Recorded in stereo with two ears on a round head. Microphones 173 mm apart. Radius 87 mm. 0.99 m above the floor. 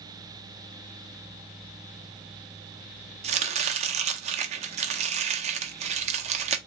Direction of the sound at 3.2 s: 35° right (ahead or behind).